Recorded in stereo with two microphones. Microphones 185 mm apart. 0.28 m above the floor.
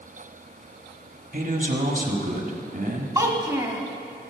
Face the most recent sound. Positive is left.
turn(degrees=-20)  # may be behind; listen again after turning